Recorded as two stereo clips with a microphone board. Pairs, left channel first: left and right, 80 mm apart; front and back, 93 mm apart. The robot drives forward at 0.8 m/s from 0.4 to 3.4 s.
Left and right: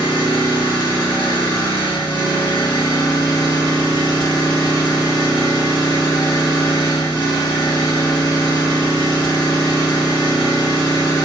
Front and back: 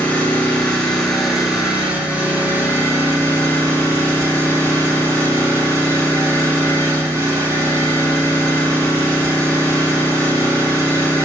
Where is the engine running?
75° left, 3 m; by 11.3 s 120° left, 3 m.